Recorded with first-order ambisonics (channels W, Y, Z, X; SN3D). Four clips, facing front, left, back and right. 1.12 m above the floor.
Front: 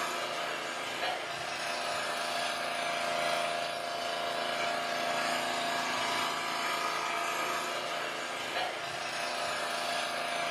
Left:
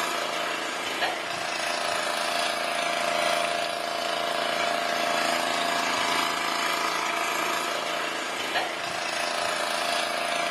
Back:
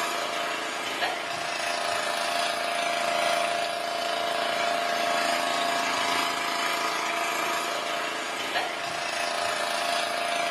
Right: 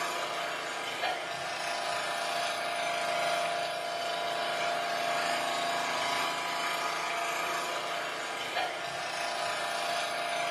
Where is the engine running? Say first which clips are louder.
Left 5 dB, back 6 dB; 120° left, 1.2 m.